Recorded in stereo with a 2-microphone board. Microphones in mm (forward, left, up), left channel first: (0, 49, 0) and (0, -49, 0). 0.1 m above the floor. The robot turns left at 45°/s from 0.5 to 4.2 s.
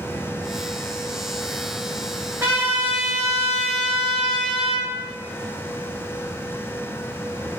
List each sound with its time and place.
2.4 s a trumpet: 25° right (ahead or behind), 1.5 m; by 4.9 s centre (ahead or behind), 1.5 m